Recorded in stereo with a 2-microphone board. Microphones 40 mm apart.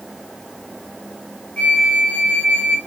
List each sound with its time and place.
1.6 s a flute: 30° left (ahead or behind), 0.8 m